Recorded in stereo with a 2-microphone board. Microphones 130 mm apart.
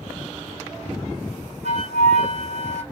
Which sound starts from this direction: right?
A flute, at 1.6 s.